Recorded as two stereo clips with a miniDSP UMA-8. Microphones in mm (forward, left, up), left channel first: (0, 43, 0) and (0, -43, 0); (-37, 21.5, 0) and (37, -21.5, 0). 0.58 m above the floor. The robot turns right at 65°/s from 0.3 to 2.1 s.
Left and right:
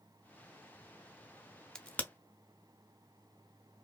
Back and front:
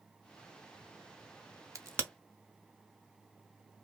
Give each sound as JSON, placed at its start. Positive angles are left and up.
{"t": 1.8, "sound": "a crack", "azimuth_deg": 10, "distance_m": 0.5}